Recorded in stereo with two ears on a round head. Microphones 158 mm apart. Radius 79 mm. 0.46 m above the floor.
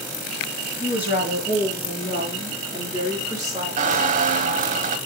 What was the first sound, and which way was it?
A woman speaking, 15° right (ahead or behind).